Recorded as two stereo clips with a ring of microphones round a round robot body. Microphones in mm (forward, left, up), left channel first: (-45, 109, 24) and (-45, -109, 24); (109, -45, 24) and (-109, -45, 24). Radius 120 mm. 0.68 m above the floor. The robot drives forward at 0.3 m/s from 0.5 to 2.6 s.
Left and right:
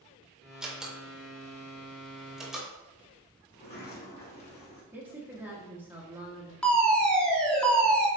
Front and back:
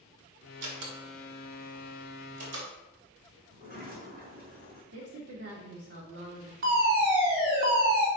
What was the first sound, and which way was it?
A door slam, 175° right.